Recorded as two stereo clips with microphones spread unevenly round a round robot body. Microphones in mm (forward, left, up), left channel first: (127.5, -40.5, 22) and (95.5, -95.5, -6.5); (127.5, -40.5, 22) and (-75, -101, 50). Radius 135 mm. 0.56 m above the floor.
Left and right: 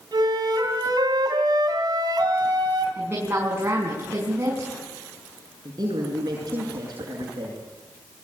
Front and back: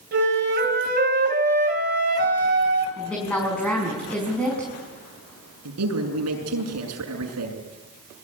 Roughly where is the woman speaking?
Right.